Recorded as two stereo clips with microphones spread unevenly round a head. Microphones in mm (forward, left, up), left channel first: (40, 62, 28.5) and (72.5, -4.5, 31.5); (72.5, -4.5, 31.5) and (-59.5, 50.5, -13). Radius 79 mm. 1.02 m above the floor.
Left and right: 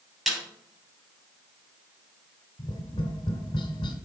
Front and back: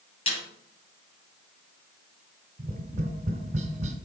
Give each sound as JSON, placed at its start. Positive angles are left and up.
{"t": 0.3, "sound": "a snare drum", "azimuth_deg": 25, "distance_m": 5.5}
{"t": 2.6, "sound": "tapping", "azimuth_deg": 110, "distance_m": 2.0}